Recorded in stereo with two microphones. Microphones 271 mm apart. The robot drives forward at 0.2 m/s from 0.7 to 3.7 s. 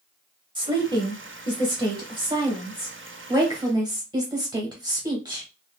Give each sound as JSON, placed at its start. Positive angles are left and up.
{"t": 0.6, "sound": "a woman speaking", "side_deg": -15, "distance_m": 0.9}